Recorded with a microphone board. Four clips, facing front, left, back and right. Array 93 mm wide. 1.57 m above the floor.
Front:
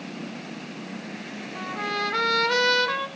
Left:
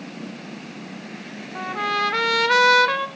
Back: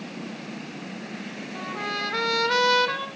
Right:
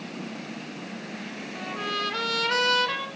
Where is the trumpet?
90° left, 1.5 m.